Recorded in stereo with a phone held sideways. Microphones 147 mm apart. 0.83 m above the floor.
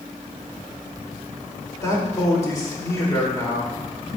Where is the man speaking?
25° left (ahead or behind), 2.5 m.